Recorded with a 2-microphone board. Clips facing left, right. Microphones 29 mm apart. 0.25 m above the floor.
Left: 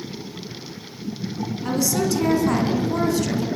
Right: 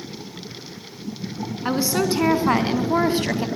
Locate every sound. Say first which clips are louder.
1.6 s a woman speaking: right 1 dB; 30° right (ahead or behind), 3.5 m; by 3.5 s 35° right (ahead or behind), 2 m